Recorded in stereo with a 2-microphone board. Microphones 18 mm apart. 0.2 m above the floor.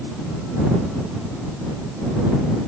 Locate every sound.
Only background noise.